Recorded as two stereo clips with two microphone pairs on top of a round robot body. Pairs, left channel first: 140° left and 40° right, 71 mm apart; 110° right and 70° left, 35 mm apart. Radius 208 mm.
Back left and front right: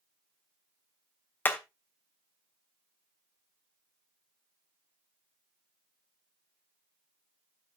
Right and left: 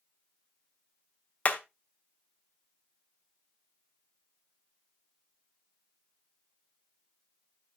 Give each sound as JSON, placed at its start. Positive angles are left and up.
{"t": 1.4, "sound": "hammering", "azimuth_deg": -155, "distance_m": 1.2}